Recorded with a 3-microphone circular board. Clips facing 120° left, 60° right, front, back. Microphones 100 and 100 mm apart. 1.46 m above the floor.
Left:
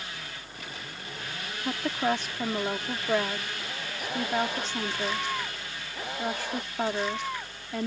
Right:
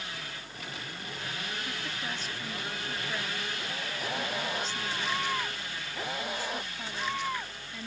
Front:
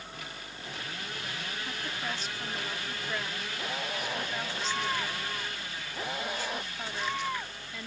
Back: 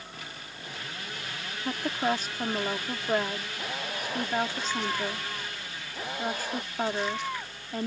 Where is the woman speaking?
140° left.